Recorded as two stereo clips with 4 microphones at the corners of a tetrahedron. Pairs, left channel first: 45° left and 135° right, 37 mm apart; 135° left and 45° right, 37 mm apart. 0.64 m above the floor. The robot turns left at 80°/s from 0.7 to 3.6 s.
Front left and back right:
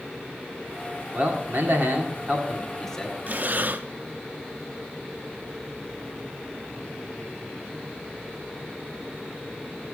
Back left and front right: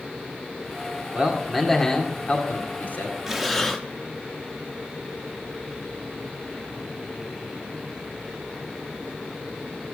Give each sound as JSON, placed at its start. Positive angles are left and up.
{"t": 1.1, "sound": "a man speaking", "azimuth_deg": -95, "distance_m": 1.9}
{"t": 3.3, "sound": "breathing", "azimuth_deg": -120, "distance_m": 0.8}